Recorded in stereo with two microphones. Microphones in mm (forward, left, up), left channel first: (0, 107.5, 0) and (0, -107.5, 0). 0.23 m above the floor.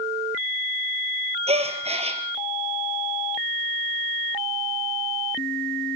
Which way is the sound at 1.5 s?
30° right (ahead or behind).